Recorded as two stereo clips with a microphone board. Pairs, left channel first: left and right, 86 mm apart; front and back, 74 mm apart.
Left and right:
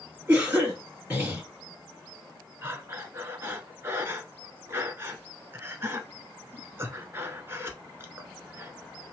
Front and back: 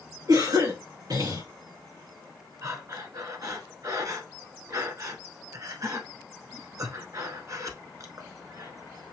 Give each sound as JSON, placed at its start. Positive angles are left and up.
{"t": 0.3, "sound": "a cough", "azimuth_deg": -160, "distance_m": 3.5}
{"t": 2.6, "sound": "breathing", "azimuth_deg": -150, "distance_m": 1.0}